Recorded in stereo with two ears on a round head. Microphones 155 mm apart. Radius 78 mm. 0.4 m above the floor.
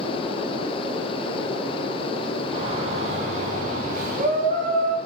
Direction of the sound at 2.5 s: 35° right (ahead or behind).